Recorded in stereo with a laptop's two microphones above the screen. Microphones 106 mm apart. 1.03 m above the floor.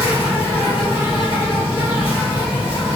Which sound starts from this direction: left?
An insect, at 0.0 s.